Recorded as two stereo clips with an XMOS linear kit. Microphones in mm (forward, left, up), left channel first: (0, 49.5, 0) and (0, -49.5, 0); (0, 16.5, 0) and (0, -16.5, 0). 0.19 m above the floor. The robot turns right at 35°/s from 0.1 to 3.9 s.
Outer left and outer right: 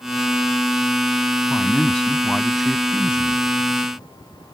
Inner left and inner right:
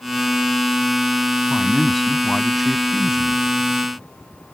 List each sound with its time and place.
1.5 s a man speaking: 15° left (ahead or behind); by 3.4 s 10° right (ahead or behind)